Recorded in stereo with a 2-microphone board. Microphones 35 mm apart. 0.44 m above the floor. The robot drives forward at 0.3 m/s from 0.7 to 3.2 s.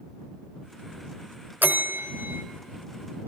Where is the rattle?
No rattle in this recording.